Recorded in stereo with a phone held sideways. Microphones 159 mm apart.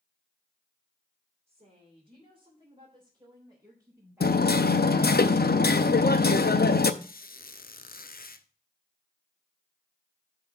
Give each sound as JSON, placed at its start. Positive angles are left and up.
{"t": 1.5, "sound": "a woman speaking", "side_deg": -45, "distance_m": 3.0}
{"t": 4.2, "sound": "hammering", "side_deg": 80, "distance_m": 0.5}
{"t": 7.0, "sound": "a squeak", "side_deg": 70, "distance_m": 0.5}